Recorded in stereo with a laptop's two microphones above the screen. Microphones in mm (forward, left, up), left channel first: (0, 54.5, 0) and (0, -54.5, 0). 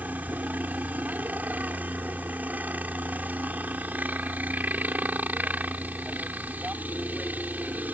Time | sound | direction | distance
0.0 | a helicopter | 15° right (ahead or behind) | ?